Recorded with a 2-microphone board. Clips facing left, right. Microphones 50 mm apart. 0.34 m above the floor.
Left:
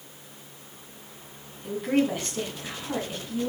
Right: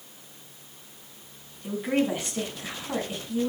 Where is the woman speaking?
10° right (ahead or behind), 3.5 m.